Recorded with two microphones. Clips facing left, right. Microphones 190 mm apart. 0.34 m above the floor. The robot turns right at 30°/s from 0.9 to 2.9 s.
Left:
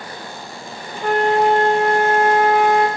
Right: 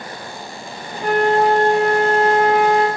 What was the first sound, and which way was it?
A flute, 140° left.